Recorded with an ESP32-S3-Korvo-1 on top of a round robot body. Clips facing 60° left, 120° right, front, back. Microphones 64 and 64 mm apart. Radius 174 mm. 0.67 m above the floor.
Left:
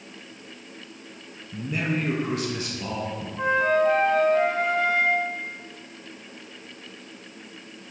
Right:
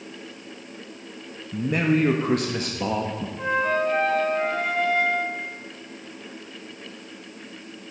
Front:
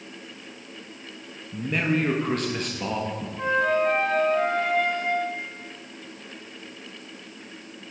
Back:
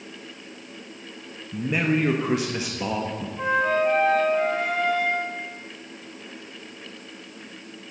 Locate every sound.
1.5 s a man speaking: 105° right, 1.3 m
3.4 s a flute: 100° left, 4.5 m